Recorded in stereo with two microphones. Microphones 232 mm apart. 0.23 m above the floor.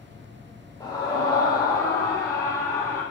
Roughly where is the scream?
Centre.